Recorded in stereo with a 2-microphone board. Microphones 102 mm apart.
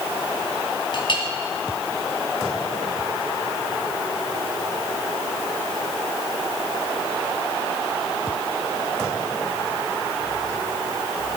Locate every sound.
0.9 s a clink: 50° left (ahead or behind), 1.8 m